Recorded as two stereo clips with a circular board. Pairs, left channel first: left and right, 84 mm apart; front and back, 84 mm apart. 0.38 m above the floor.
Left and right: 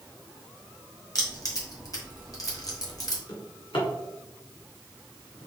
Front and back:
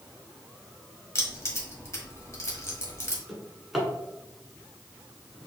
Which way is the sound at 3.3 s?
90° left.